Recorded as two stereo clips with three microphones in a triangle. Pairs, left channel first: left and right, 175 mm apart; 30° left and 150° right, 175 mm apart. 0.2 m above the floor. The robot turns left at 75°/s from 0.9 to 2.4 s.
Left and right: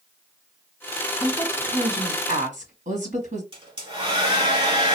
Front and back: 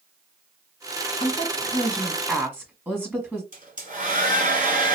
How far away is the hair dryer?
About 2.0 m.